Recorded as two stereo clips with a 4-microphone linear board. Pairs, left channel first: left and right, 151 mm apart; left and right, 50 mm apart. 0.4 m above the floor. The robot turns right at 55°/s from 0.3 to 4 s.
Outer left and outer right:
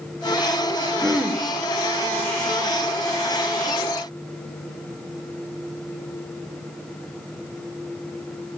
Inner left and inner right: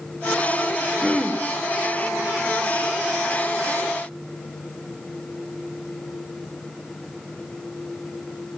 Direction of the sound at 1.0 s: 5° right (ahead or behind).